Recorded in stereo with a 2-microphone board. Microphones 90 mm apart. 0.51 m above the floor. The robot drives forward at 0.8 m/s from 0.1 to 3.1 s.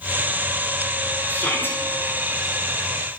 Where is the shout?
25° left (ahead or behind), 6 m.